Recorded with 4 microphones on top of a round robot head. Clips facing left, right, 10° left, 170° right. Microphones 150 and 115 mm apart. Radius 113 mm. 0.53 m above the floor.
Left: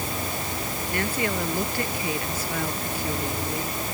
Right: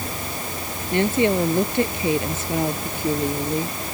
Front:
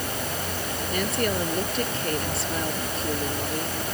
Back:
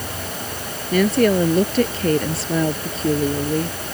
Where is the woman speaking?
160° right.